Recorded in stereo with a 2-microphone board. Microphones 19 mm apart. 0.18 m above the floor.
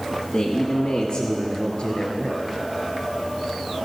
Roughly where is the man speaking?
Left.